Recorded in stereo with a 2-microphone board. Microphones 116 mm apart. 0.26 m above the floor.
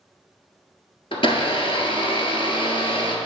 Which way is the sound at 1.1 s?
50° left (ahead or behind).